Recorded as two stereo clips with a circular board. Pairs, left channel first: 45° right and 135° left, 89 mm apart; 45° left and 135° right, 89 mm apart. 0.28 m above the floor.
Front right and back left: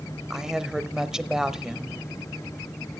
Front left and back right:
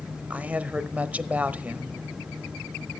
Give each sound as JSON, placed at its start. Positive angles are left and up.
{"t": 0.3, "sound": "a woman speaking", "azimuth_deg": -155, "distance_m": 0.9}